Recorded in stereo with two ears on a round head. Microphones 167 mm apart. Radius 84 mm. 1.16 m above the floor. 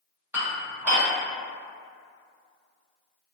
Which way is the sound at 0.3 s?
10° right (ahead or behind).